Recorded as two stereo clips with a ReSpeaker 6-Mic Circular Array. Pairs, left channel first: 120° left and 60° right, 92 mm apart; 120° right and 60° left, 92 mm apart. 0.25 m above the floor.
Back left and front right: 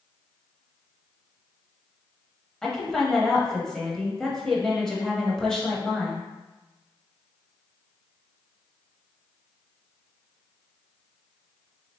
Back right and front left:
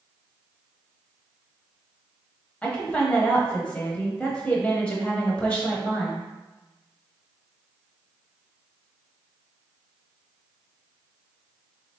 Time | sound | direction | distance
2.6 | a woman speaking | 165° right | 0.9 m